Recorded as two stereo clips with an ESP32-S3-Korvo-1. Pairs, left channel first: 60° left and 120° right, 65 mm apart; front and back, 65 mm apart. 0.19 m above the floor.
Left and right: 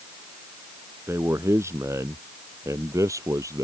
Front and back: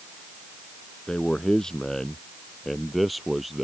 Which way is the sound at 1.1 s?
75° right.